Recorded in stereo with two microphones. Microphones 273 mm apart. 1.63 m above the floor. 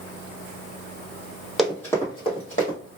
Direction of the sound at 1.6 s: Centre (ahead or behind).